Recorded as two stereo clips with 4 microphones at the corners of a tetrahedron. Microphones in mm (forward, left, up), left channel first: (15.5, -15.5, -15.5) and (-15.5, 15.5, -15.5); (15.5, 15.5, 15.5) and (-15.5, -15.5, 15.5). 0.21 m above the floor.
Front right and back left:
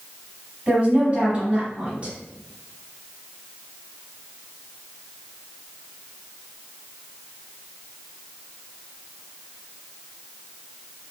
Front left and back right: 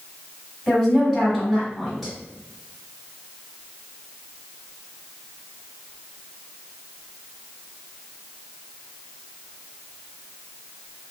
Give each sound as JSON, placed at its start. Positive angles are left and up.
{"t": 0.7, "sound": "a woman speaking", "azimuth_deg": 130, "distance_m": 1.7}